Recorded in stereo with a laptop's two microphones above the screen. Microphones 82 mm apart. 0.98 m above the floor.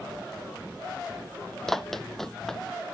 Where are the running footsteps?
5° left (ahead or behind).